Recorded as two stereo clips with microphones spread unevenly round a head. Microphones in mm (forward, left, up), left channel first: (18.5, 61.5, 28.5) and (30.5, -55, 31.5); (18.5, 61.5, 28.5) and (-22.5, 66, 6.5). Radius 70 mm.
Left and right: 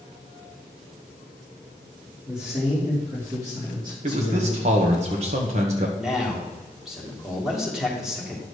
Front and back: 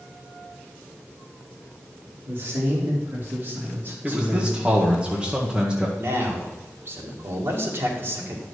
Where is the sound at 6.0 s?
170° right, 2.5 m.